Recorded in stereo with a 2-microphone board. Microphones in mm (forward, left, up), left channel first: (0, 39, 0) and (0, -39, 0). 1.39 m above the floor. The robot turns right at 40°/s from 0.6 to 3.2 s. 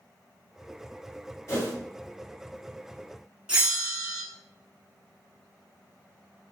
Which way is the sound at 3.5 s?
15° right (ahead or behind).